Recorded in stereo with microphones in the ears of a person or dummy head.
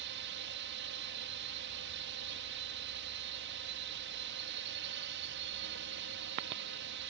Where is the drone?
60° right (ahead or behind).